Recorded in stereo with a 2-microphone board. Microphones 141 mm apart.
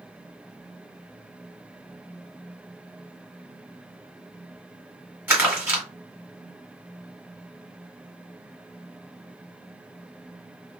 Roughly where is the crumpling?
Centre.